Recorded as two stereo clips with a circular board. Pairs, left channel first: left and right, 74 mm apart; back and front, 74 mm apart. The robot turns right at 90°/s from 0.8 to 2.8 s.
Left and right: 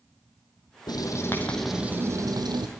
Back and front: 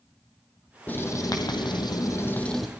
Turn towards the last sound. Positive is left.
turn(degrees=-75)